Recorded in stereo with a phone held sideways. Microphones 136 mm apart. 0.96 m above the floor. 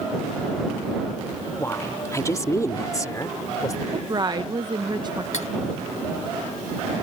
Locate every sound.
1.6 s a woman speaking: 20° left (ahead or behind); by 3.8 s 25° left (ahead or behind)
3.9 s a woman speaking: 30° right (ahead or behind)
5.3 s cutlery clinking: 60° left (ahead or behind)